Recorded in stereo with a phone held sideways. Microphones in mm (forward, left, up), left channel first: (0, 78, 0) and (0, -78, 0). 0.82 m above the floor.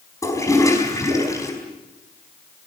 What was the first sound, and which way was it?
A toilet flushing, 20° left (ahead or behind).